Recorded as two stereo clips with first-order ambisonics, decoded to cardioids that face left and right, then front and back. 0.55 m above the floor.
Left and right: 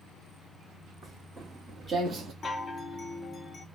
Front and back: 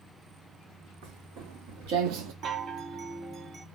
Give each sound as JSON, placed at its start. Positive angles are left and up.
{"t": 1.0, "sound": "footsteps", "azimuth_deg": -165, "distance_m": 2.0}
{"t": 2.4, "sound": "a chime", "azimuth_deg": 145, "distance_m": 0.6}